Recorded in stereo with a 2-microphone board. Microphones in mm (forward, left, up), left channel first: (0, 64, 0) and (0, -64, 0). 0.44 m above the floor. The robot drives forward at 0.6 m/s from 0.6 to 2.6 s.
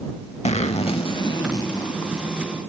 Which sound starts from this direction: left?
A zipper, at 0.5 s.